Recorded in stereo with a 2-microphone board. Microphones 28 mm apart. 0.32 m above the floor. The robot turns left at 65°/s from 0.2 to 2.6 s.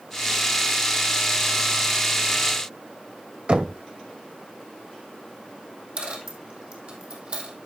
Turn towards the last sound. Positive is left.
turn(degrees=-50)  # may be behind; listen again after turning